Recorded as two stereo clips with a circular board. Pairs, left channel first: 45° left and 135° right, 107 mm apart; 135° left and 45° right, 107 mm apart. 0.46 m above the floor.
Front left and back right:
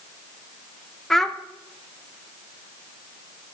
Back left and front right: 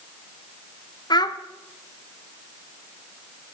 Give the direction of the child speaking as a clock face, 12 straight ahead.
8 o'clock.